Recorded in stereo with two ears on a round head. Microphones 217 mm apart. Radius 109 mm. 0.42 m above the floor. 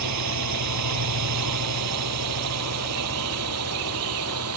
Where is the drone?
80° right; by 4.6 s 65° right (ahead or behind).